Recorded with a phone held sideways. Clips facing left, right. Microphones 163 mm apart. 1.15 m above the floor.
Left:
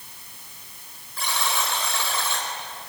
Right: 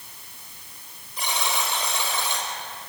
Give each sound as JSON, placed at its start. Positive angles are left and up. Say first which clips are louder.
{"t": 1.2, "sound": "a buzzer", "louder": "even", "side_deg": -20, "distance_m": 4.5}